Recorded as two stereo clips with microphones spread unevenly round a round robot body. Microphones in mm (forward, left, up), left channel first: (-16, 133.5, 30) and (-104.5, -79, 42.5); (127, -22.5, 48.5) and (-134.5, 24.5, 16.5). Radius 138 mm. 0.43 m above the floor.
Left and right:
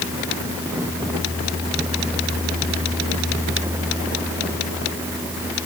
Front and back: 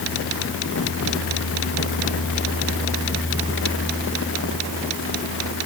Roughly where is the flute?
No flute in this recording.